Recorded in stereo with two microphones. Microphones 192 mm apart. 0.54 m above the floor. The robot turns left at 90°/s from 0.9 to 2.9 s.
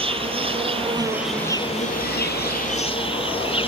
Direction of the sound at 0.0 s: 145° right.